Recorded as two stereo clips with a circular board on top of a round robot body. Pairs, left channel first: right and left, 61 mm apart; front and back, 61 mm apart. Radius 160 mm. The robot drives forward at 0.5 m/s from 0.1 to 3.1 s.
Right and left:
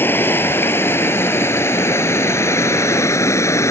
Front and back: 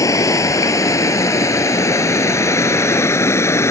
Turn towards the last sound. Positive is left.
turn(degrees=-45)